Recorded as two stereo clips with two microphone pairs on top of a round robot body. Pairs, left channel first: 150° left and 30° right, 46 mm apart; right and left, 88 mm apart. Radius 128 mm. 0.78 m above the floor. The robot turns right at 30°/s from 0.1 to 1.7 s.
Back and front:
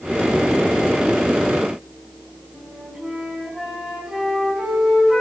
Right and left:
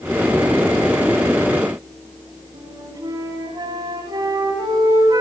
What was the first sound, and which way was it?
A flute, 50° left.